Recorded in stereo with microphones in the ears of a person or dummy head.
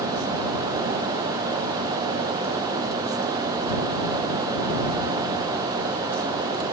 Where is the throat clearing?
No throat clearing in this recording.